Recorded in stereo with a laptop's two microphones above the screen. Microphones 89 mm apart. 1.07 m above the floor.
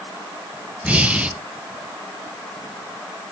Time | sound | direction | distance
0.8 | breathing | 15° right (ahead or behind) | 0.6 m